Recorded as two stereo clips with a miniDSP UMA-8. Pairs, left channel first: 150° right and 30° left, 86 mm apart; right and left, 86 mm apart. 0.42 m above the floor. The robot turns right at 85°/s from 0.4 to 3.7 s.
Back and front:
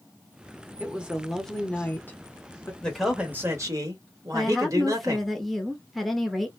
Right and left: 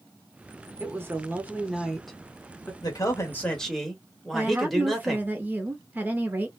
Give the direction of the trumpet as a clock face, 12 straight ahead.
No trumpet in this recording.